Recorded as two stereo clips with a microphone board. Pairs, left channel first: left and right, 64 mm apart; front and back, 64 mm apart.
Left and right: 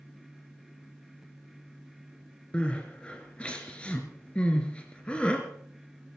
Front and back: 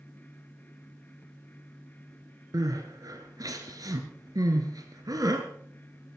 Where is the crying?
160° left, 2.5 m.